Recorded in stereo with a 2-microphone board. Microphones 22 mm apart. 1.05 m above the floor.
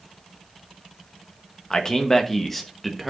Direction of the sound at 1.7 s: 30° left (ahead or behind).